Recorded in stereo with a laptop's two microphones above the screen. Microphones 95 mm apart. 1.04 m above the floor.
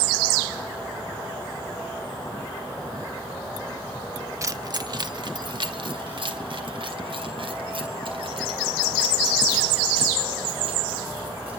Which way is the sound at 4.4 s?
35° right (ahead or behind).